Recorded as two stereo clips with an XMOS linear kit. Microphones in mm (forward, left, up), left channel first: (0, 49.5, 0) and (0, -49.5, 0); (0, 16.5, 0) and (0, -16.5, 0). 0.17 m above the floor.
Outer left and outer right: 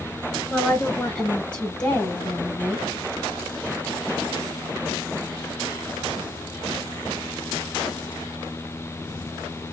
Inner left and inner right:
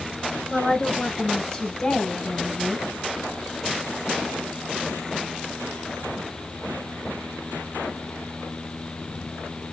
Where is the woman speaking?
Centre (ahead or behind), 1.5 m; by 2.9 s 15° left (ahead or behind), 1.4 m.